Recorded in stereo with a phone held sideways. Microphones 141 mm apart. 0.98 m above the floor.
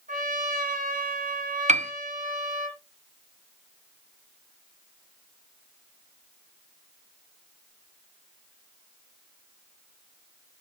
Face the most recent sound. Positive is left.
turn(degrees=-55)  # may be behind; listen again after turning